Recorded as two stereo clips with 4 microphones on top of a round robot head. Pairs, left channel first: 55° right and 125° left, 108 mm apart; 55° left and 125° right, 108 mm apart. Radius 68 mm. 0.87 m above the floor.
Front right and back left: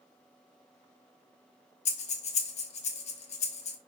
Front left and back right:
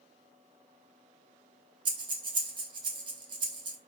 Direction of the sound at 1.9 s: 80° right.